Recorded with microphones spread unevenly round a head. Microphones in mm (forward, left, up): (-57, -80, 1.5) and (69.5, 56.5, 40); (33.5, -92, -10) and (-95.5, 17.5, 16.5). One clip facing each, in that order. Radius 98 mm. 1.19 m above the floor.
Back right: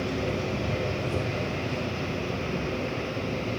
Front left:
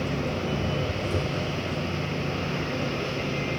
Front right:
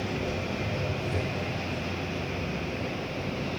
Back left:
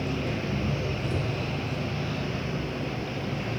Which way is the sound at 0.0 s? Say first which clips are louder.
Even, back left 1 dB; 105° left.